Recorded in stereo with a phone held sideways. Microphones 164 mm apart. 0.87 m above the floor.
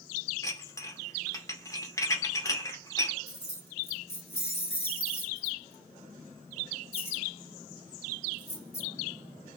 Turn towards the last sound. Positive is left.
turn(degrees=40)  # may be behind; listen again after turning